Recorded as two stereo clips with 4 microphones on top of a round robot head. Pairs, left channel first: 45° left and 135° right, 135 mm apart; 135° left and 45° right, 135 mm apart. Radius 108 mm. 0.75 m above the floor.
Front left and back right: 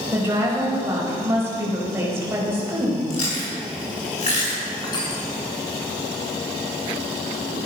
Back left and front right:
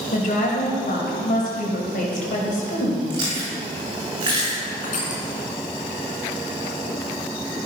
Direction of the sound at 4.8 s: 110° left.